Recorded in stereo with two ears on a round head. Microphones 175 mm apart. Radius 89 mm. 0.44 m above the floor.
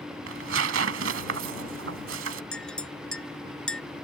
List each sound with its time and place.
0.3 s tearing paper: 80° right
2.5 s a clink: 5° left (ahead or behind)